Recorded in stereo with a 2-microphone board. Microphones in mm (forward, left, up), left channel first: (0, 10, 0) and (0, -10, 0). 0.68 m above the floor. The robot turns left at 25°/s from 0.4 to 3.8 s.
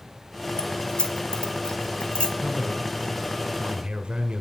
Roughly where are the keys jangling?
Left.